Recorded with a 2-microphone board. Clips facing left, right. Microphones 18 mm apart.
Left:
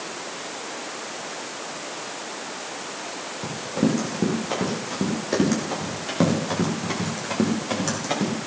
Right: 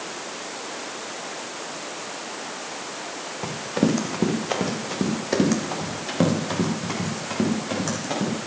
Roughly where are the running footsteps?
Right.